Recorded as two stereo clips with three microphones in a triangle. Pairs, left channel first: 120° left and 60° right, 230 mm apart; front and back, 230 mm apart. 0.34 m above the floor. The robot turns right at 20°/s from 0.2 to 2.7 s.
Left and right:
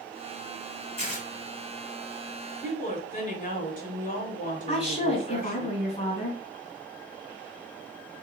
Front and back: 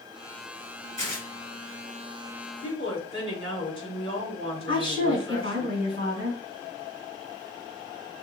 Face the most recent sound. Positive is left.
turn(degrees=175)